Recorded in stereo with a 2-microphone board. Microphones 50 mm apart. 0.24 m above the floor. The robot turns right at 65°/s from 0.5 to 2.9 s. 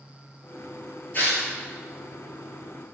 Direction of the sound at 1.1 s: 35° left (ahead or behind).